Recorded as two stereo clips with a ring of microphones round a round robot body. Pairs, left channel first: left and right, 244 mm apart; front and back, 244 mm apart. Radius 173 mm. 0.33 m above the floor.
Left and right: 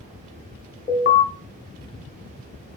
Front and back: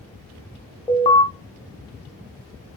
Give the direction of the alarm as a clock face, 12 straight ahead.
10 o'clock.